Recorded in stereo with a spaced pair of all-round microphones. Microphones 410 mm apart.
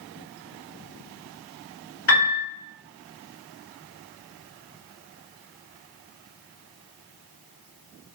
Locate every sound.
2.1 s a piano: 35° left (ahead or behind), 1.1 m